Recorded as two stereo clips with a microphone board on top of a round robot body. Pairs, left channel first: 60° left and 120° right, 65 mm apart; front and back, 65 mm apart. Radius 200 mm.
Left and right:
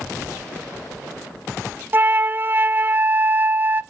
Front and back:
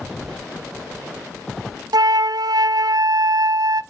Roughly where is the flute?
Behind.